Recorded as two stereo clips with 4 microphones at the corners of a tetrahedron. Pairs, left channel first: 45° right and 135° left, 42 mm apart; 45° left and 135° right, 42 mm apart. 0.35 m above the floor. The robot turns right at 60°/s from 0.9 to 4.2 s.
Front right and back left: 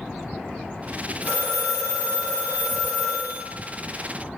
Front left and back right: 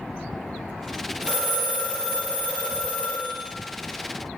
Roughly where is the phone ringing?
Right.